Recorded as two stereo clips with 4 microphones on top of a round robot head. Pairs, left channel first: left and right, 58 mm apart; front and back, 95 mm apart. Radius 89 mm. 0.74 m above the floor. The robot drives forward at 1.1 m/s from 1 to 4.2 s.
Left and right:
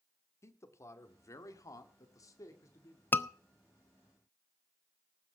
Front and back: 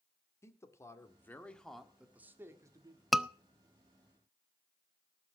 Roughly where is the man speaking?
Ahead left.